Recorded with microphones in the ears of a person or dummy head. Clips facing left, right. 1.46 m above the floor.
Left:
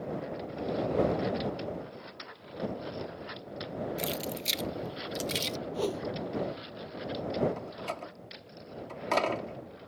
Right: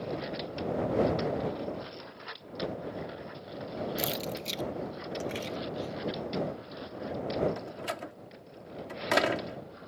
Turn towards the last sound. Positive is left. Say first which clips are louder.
# right 1 dB
turn(degrees=-15)  # may be behind; listen again after turning